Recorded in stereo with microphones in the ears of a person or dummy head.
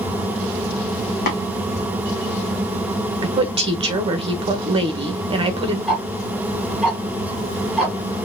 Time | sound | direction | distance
1.3 | tapping | 50° left (ahead or behind) | 1.5 m
3.2 | a woman speaking | 30° right (ahead or behind) | 1.0 m
5.9 | ticking | centre (ahead or behind) | 2.5 m